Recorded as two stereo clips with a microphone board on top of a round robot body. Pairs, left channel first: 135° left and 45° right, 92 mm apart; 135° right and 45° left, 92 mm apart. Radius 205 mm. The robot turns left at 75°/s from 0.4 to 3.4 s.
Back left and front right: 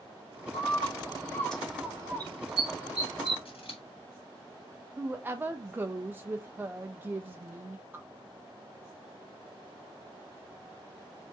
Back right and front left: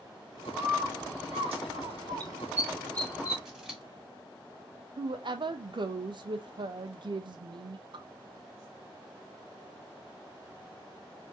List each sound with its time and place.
0.5 s a bird: 125° left, 1.7 m; by 3.4 s 85° right, 1.7 m
3.5 s scissors: 130° left, 2.5 m
5.0 s a woman speaking: 20° left, 0.7 m